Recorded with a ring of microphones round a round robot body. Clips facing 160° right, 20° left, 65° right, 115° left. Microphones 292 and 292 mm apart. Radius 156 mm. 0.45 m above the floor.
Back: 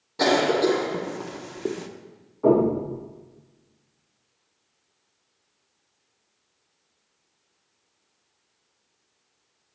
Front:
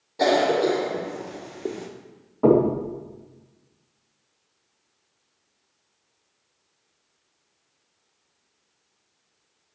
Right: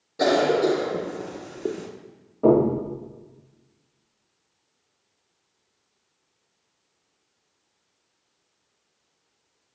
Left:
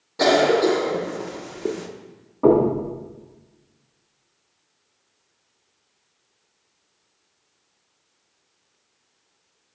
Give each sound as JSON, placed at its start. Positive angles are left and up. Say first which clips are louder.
{"t": 0.2, "sound": "a cough", "louder": "even, left 3 dB", "azimuth_deg": -175, "distance_m": 0.7}
{"t": 2.4, "sound": "knocking", "louder": "front 1 dB, left 2 dB", "azimuth_deg": 30, "distance_m": 3.0}